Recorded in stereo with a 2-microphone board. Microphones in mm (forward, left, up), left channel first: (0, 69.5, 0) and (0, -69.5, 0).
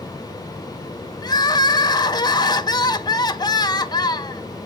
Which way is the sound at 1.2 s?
30° left (ahead or behind).